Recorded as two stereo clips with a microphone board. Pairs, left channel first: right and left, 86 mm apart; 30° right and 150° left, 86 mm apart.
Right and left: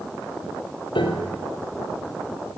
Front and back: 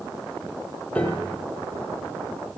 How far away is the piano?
About 1.4 m.